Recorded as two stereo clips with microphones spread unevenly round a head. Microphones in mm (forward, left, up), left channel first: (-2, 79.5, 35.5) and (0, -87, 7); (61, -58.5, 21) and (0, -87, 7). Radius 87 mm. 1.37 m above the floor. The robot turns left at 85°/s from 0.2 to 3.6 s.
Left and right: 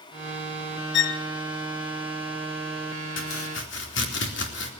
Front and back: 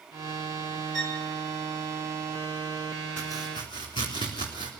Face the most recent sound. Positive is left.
turn(degrees=70)